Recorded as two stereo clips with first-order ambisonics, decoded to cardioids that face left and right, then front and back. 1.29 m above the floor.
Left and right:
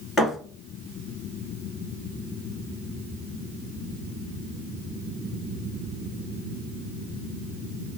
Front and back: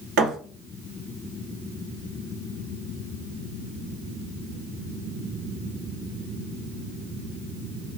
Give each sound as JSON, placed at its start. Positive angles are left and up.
{"t": 0.2, "sound": "a thud", "azimuth_deg": 170, "distance_m": 2.5}